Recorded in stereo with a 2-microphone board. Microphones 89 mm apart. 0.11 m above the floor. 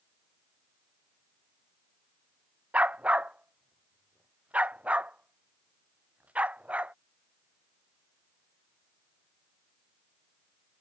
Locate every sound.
2.7 s a dog barking: 15° right (ahead or behind)